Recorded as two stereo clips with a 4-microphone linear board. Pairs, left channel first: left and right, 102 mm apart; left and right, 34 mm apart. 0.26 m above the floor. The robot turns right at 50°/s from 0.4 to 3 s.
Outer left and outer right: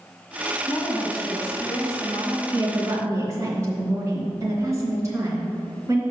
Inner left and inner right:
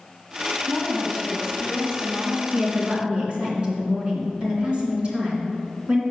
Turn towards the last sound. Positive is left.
turn(degrees=-30)  # may be behind; listen again after turning